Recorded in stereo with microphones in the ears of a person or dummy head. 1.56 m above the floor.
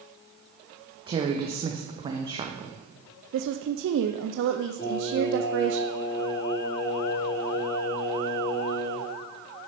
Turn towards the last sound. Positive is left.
turn(degrees=25)  # may be behind; listen again after turning